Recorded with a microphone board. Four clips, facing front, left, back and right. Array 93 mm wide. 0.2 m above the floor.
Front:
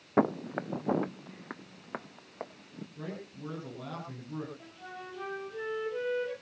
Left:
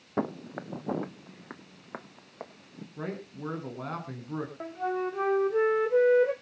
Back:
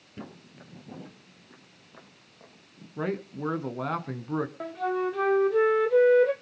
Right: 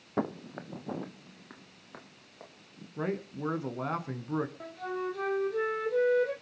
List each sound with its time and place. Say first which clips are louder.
0.2 s footsteps: left 1 dB, front 17 dB; 5° left, 0.8 m; by 2.9 s 35° left, 2.5 m
3.0 s a man speaking: right 4 dB, back 12 dB; 165° right, 2.5 m
4.6 s a flute: left 4 dB, back 17 dB; 155° left, 2 m